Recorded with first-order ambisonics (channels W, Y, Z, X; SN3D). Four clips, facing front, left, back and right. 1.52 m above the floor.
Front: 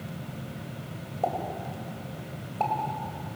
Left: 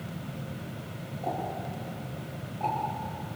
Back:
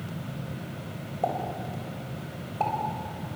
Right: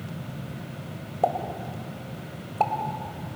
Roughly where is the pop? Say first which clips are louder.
Right 7 dB, even; right.